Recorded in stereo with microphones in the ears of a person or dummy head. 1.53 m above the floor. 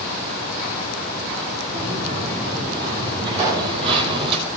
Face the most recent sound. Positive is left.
turn(degrees=-15)  # may be behind; listen again after turning